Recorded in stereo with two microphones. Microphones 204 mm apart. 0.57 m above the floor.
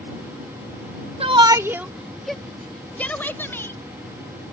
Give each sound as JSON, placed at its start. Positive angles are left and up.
{"t": 1.2, "sound": "a shout", "side_deg": -30}